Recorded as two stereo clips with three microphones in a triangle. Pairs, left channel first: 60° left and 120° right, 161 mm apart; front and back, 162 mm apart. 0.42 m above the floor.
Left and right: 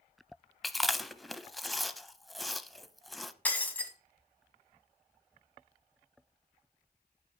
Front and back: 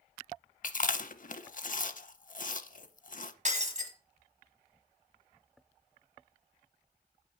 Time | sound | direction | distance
0.6 | chewing | 30° right | 0.5 m
3.5 | breaking glass | 140° left | 1.5 m